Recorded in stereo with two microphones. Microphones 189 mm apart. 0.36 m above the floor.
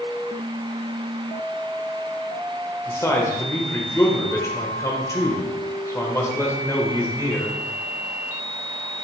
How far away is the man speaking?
About 0.8 m.